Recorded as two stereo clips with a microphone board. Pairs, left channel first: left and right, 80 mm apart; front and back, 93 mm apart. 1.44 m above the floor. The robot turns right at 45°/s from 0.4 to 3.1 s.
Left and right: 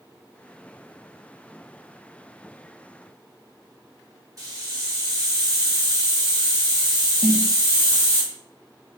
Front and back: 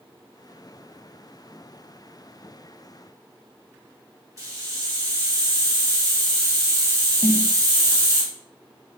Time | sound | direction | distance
4.4 | a hiss | 130° right | 2.5 m
7.2 | a snare drum | 55° right | 2.0 m